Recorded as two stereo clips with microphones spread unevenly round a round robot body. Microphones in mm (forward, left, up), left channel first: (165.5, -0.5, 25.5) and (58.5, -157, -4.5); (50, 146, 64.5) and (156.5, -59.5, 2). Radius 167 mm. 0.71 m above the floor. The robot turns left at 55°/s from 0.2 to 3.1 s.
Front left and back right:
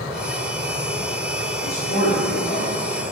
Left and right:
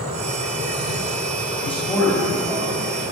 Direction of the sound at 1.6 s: 50° left.